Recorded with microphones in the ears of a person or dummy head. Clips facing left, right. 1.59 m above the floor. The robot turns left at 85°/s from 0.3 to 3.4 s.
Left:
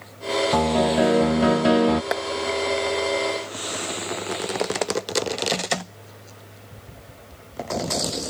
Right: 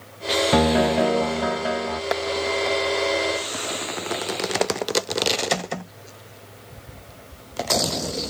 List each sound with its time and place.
0.5 s a piano: 150° right; by 2.0 s 80° left
2.1 s a clap: 5° left (ahead or behind); by 2.2 s 5° right (ahead or behind)